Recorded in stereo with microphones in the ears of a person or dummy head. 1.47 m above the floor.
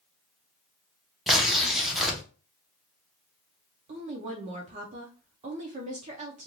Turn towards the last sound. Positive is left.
turn(degrees=-35)  # may be behind; listen again after turning